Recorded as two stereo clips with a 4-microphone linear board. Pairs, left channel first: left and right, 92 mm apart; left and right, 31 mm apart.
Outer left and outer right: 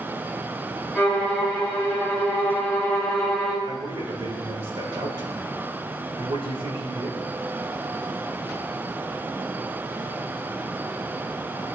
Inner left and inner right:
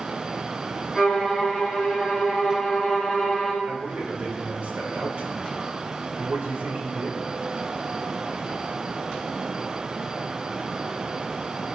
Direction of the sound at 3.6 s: 75° right (ahead or behind).